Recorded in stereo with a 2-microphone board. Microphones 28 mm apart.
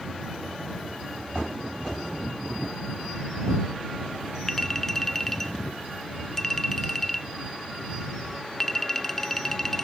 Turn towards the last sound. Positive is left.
turn(degrees=15)  # may be behind; listen again after turning